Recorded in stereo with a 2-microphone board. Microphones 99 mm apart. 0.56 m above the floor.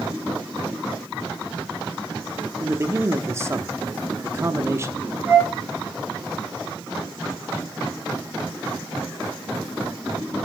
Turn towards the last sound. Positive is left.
turn(degrees=55)  # may be behind; listen again after turning